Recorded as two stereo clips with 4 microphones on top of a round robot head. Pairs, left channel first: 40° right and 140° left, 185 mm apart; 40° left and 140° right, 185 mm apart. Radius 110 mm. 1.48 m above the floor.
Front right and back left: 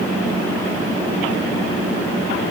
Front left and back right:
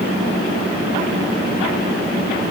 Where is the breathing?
No breathing in this recording.